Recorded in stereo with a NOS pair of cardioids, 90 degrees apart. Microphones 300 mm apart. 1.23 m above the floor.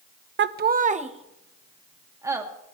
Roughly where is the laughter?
Ahead right.